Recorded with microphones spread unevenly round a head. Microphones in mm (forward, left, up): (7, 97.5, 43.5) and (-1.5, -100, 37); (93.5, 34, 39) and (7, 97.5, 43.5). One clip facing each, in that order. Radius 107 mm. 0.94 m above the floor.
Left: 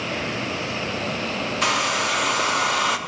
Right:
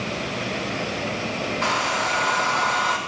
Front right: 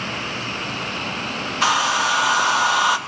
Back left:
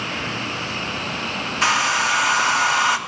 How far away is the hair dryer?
About 0.7 m.